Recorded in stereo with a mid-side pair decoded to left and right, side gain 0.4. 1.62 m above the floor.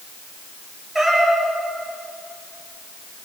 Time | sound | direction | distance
0.9 | a cat meowing | 15° right | 6.5 m